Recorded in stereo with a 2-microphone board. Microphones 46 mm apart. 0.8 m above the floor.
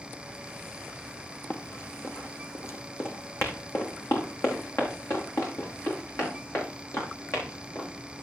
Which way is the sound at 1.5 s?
45° left (ahead or behind).